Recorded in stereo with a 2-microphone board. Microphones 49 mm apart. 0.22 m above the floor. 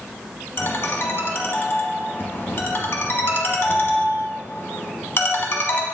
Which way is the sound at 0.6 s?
50° left (ahead or behind).